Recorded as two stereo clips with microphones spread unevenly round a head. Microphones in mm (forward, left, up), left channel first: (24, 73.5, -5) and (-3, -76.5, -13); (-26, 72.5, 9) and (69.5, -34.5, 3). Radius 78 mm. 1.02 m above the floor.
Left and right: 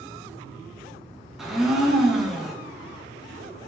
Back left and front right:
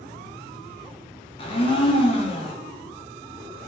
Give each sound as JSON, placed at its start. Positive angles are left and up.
{"t": 1.4, "sound": "a blender", "azimuth_deg": 175, "distance_m": 0.5}